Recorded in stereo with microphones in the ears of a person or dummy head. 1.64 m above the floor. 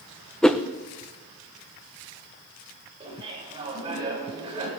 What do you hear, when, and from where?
0.4 s a whoosh: centre (ahead or behind), 0.7 m
3.0 s laughter: 30° right (ahead or behind), 8.5 m